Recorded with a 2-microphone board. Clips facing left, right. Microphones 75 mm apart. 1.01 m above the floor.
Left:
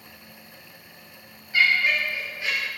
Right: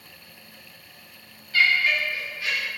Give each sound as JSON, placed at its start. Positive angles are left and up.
{"t": 1.5, "sound": "laughter", "side_deg": 20, "distance_m": 1.9}